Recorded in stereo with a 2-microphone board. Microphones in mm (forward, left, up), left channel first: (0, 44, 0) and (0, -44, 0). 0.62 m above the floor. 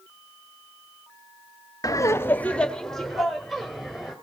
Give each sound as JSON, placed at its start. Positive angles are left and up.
{"t": 1.8, "sound": "laughter", "side_deg": 40, "distance_m": 0.7}